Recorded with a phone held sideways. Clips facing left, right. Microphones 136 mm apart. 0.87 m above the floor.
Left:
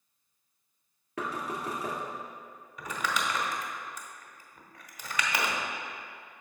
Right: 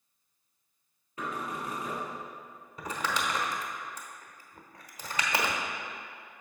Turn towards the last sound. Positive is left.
turn(degrees=-30)  # may be behind; listen again after turning